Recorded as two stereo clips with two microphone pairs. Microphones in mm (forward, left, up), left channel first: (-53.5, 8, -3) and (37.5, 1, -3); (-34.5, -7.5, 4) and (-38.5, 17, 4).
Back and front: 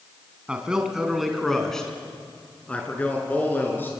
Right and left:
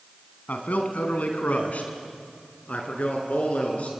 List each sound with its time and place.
0.5 s a man speaking: 85° right, 3.5 m; by 3.9 s 115° right, 5.5 m